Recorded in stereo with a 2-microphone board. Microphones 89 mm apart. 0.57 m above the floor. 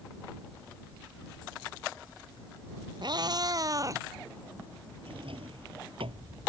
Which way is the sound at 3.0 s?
60° right (ahead or behind).